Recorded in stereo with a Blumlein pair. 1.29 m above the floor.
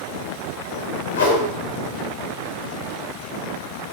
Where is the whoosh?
60° left, 1.3 m.